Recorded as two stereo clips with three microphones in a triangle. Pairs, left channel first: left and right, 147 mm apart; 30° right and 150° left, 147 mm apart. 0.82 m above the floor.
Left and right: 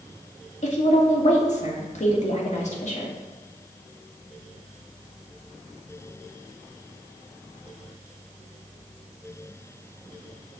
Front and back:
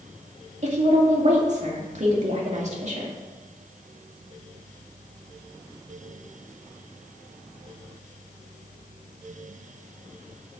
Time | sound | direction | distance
0.6 | a woman speaking | 120° left | 1.8 m